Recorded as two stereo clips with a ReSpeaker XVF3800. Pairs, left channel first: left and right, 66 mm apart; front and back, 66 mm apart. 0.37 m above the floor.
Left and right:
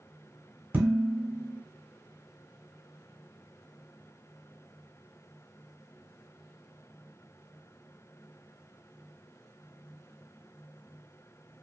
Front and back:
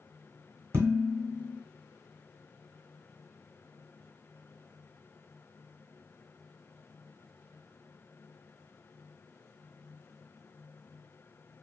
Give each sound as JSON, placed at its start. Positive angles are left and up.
{"t": 0.7, "sound": "dishes clattering", "azimuth_deg": -145, "distance_m": 1.1}